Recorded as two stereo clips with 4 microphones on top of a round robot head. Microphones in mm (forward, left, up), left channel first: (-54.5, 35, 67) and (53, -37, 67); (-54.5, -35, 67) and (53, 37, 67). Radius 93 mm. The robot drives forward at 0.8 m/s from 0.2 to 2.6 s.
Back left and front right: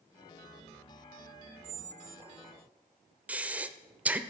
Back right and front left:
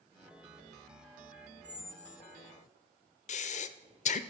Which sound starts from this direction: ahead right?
A squeak, at 1.6 s.